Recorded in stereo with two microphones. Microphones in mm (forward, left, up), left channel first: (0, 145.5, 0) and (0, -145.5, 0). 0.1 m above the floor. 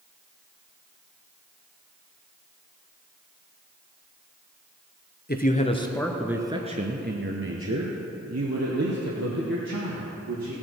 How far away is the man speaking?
About 1.2 m.